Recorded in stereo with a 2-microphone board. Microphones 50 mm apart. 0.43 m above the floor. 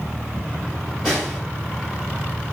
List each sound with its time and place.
1.0 s a snare drum: 5° right (ahead or behind), 2.5 m